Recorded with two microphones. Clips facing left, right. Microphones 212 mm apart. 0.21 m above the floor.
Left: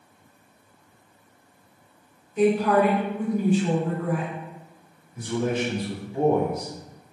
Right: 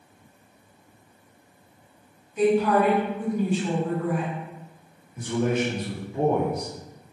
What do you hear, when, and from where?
2.4 s a woman speaking: 50° left (ahead or behind), 1.8 m
5.2 s a man speaking: 30° left (ahead or behind), 1.9 m